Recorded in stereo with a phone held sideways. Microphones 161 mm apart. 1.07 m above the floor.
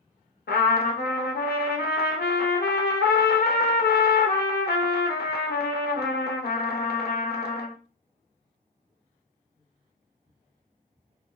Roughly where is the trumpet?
Left.